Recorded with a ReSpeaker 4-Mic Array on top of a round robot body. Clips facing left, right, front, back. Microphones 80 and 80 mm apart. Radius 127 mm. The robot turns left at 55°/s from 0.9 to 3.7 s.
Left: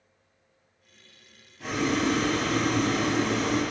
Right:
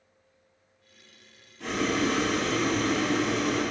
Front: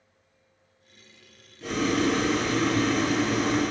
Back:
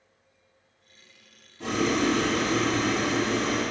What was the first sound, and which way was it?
Boiling, 175° left.